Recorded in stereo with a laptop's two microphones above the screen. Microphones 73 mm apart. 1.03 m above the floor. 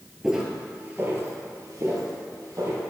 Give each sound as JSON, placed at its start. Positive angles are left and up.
{"t": 0.2, "sound": "footsteps", "side_deg": -10, "distance_m": 1.1}